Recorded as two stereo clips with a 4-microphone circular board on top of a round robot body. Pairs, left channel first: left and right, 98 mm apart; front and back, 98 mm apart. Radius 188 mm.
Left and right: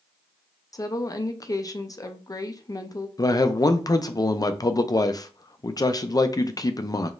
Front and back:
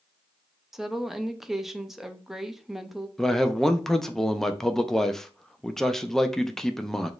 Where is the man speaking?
85° left, 0.7 m.